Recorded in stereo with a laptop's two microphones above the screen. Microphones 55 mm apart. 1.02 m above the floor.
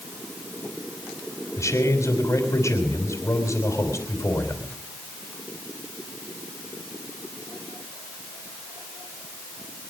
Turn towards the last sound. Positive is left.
turn(degrees=70)  # may be behind; listen again after turning